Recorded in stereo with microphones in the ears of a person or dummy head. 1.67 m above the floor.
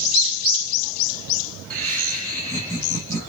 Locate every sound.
1.7 s laughter: 5° left (ahead or behind), 2.5 m; by 3.3 s 15° left (ahead or behind), 4 m